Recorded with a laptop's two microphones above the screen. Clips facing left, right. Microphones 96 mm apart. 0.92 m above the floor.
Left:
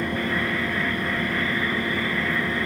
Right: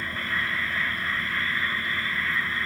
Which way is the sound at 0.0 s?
70° left (ahead or behind).